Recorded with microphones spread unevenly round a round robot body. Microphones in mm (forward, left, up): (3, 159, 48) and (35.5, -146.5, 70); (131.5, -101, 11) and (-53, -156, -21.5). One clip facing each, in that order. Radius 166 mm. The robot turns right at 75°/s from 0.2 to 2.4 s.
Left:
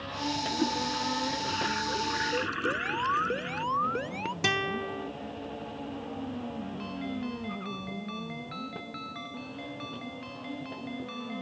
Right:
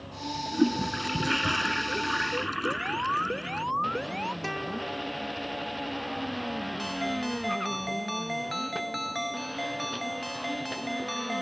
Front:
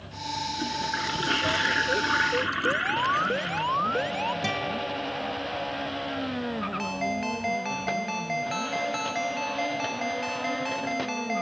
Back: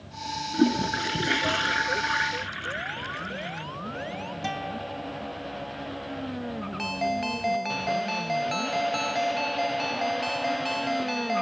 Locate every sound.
0.5 s a toilet flushing: 140° right; by 3.6 s straight ahead
2.6 s an alarm: 5° left
4.4 s a guitar: 70° left
6.8 s a ringtone: 115° right